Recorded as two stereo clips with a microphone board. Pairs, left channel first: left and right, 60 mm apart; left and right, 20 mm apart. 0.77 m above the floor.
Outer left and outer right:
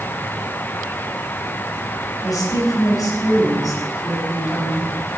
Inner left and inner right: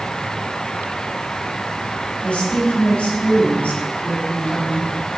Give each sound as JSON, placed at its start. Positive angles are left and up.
{"t": 2.2, "sound": "a woman speaking", "side_deg": 80, "distance_m": 5.0}